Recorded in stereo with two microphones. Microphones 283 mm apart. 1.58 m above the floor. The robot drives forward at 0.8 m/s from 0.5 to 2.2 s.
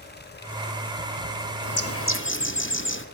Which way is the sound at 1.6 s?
65° left (ahead or behind).